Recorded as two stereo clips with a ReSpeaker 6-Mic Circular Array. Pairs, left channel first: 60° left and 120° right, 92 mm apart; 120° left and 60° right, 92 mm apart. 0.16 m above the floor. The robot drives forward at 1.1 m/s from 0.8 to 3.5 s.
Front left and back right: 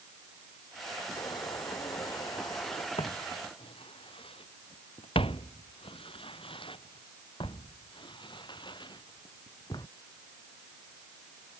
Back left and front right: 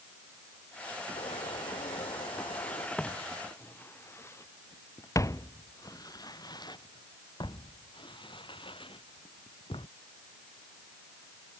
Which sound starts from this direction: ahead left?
Footsteps, at 3.0 s.